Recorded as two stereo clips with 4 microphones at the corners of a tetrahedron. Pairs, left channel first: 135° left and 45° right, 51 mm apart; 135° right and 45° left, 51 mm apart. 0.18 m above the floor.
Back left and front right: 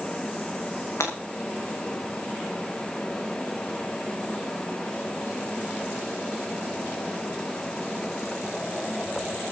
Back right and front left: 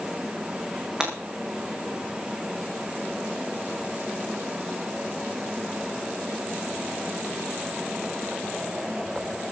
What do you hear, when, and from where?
1.0 s breaking glass: 120° left, 6.5 m